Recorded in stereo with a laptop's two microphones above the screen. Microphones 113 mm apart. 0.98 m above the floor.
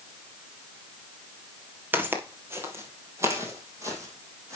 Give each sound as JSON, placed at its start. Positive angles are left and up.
{"t": 1.9, "sound": "footsteps", "side_deg": -20, "distance_m": 1.5}